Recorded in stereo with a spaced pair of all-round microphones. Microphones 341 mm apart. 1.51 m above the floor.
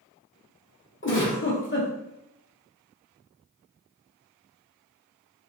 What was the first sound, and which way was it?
A giggle, 35° left (ahead or behind).